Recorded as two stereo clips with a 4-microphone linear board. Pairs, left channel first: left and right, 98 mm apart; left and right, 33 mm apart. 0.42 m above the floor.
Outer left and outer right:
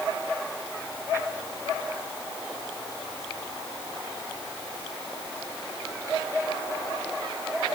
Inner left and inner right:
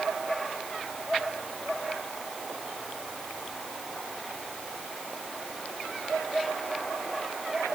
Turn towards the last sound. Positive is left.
No sound to turn to.